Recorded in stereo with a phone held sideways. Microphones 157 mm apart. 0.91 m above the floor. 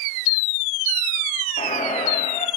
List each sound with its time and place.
1.6 s a squeak: 60° left (ahead or behind), 4 m